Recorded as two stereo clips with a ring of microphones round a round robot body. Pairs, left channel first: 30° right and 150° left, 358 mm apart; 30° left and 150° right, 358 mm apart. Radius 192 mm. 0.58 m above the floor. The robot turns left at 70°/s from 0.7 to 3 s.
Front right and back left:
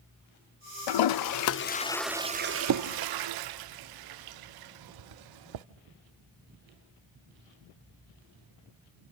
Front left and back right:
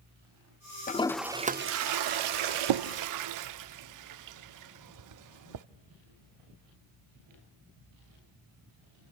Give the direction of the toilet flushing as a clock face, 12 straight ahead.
1 o'clock.